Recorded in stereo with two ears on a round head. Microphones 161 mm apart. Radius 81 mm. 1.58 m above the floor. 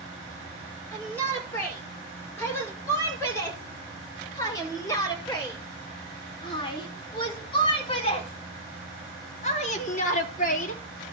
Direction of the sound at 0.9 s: 10° left (ahead or behind).